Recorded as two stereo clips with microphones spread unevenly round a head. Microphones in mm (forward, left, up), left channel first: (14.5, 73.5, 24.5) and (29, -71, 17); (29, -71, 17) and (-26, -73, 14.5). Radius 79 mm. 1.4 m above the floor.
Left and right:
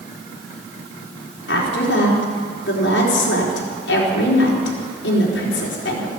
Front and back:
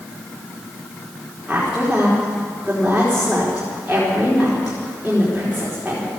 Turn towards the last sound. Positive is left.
turn(degrees=100)